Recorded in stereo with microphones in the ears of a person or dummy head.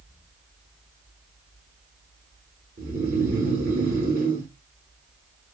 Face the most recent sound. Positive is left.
turn(degrees=-30)  # may be behind; listen again after turning